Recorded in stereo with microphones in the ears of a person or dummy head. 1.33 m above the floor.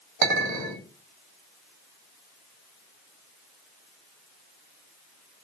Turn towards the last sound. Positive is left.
turn(degrees=-50)  # may be behind; listen again after turning